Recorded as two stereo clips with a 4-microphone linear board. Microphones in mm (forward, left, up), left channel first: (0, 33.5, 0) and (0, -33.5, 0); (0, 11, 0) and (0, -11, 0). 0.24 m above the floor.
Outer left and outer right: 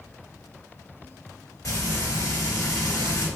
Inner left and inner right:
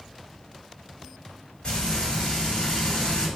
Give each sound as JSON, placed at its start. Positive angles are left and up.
{"t": 1.6, "sound": "frying", "side_deg": 60, "distance_m": 1.8}